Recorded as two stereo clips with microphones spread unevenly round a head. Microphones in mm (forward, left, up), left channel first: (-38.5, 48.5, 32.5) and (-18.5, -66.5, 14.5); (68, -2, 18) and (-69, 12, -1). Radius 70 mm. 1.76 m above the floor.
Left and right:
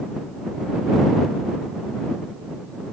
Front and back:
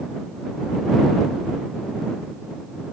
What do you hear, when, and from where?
Only background noise.